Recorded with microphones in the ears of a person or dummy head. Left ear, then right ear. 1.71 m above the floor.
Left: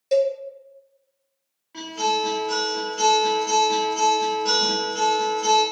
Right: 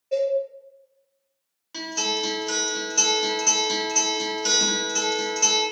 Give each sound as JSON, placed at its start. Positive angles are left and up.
{"t": 0.1, "sound": "a cowbell", "side_deg": 70, "distance_m": 0.7}
{"t": 1.7, "sound": "a guitar", "side_deg": -90, "distance_m": 1.4}